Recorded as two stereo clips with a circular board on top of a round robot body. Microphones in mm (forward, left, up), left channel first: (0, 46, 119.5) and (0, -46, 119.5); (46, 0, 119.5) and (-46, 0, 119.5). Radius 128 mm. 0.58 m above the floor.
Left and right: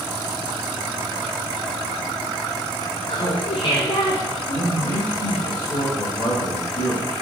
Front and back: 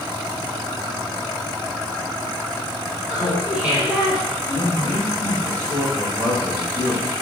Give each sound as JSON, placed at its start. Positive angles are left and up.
{"t": 3.1, "sound": "laughter", "azimuth_deg": 105, "distance_m": 2.5}
{"t": 4.5, "sound": "a man speaking", "azimuth_deg": 125, "distance_m": 4.5}